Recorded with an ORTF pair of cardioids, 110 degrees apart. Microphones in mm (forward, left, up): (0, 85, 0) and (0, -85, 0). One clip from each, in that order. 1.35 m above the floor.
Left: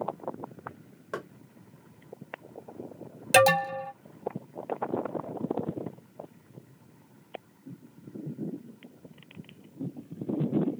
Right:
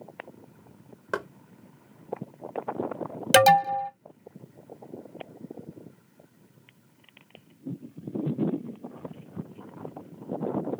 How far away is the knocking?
About 0.7 m.